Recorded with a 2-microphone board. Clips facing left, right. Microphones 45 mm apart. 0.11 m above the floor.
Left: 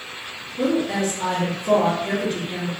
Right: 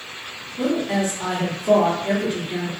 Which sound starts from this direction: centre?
A woman speaking, at 0.6 s.